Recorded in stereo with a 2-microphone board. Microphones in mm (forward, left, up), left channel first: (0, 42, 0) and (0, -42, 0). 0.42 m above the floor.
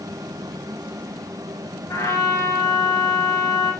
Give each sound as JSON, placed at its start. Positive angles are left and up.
{"t": 1.9, "sound": "a trumpet", "side_deg": 45, "distance_m": 5.5}